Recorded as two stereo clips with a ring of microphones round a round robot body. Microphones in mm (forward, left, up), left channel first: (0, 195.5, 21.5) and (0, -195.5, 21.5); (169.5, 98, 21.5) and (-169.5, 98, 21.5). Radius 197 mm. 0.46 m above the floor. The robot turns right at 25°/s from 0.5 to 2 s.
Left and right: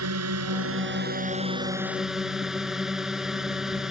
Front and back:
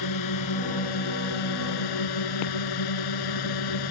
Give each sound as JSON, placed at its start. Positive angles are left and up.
{"t": 0.0, "sound": "a drone", "azimuth_deg": -40}